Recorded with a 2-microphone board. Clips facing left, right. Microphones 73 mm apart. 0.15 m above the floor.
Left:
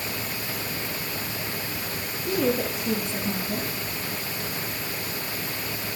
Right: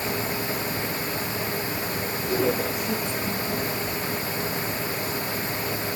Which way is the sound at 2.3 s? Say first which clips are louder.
Even; 65° left (ahead or behind).